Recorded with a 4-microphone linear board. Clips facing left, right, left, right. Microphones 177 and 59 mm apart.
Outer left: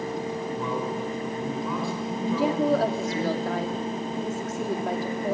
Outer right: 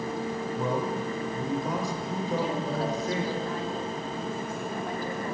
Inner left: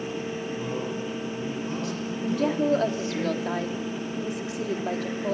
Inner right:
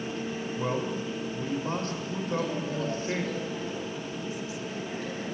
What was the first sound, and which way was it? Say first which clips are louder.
A man speaking: outer right 2 dB, inner right 4 dB; 45° right (ahead or behind).